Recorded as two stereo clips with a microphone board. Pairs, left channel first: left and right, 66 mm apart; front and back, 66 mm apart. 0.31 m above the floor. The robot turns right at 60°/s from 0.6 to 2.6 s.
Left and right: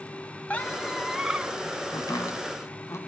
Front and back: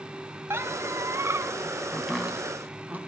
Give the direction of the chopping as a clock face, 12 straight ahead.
9 o'clock.